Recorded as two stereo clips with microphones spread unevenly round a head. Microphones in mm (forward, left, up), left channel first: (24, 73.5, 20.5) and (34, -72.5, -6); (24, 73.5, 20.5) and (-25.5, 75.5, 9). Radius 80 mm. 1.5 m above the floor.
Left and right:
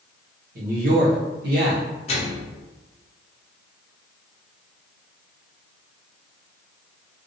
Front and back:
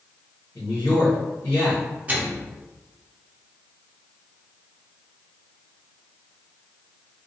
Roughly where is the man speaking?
Ahead right.